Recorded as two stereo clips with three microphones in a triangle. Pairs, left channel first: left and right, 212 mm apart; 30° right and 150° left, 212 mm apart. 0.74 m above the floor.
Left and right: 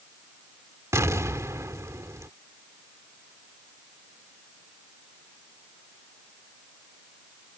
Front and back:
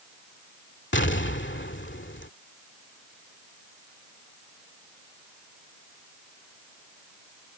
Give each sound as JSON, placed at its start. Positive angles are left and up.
{"t": 0.9, "sound": "an explosion", "azimuth_deg": -15}